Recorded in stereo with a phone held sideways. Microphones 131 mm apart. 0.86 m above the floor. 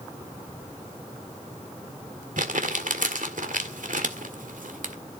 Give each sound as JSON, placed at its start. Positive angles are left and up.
{"t": 2.4, "sound": "crumpling", "side_deg": -85, "distance_m": 1.7}